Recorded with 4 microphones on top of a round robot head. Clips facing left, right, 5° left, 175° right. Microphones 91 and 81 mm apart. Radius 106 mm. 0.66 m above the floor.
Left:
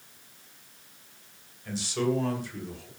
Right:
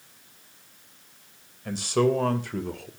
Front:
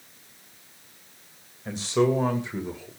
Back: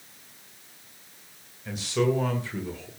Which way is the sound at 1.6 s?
55° right.